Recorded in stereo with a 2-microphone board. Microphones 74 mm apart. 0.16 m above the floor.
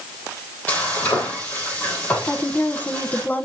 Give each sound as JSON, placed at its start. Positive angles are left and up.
{"t": 0.7, "sound": "frying", "side_deg": 20, "distance_m": 5.0}
{"t": 2.3, "sound": "a woman speaking", "side_deg": 25, "distance_m": 1.2}